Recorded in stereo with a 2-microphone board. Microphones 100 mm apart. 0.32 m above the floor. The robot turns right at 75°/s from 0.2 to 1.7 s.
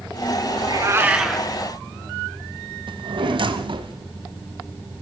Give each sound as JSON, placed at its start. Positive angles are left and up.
{"t": 0.6, "sound": "a cat meowing", "azimuth_deg": -60, "distance_m": 1.3}
{"t": 2.9, "sound": "a drawer", "side_deg": -60, "distance_m": 1.0}